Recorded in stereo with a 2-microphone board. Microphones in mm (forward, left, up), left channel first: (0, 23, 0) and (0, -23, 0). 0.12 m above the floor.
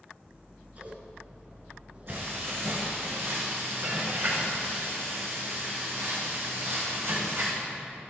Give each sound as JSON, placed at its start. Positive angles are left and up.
{"t": 0.2, "sound": "scissors", "side_deg": -35, "distance_m": 2.0}
{"t": 2.1, "sound": "frying", "side_deg": -65, "distance_m": 4.0}